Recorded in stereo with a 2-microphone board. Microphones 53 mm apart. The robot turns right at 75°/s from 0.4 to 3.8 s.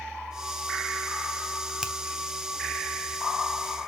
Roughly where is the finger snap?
Centre.